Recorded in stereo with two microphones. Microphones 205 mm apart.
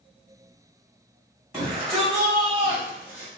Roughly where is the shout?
Centre.